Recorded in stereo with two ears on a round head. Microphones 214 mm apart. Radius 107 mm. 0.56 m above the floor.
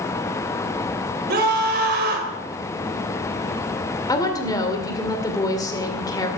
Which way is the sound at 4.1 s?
15° left (ahead or behind).